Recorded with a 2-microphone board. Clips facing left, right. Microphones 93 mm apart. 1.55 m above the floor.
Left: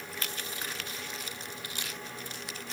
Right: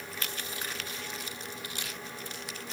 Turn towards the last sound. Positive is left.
No sound to turn to.